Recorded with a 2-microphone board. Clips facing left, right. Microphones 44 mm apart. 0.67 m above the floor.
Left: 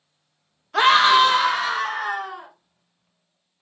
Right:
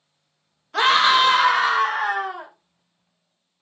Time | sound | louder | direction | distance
0.7 | a scream | left 2 dB | 10° left (ahead or behind) | 0.5 m